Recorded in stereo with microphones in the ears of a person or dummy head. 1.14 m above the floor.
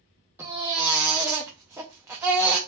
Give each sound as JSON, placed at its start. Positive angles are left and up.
{"t": 0.4, "sound": "a baby crying", "side_deg": -10, "distance_m": 0.5}